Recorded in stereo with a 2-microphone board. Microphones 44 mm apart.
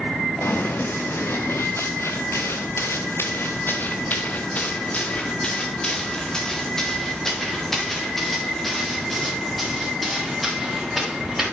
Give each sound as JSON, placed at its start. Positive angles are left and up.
{"t": 0.4, "sound": "running footsteps", "side_deg": 60, "distance_m": 1.8}